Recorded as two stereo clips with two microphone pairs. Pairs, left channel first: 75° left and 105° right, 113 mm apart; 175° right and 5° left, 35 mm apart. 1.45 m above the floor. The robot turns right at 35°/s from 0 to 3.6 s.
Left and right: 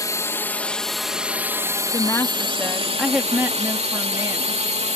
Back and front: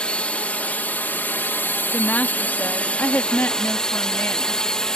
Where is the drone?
130° left; by 5.0 s 105° right.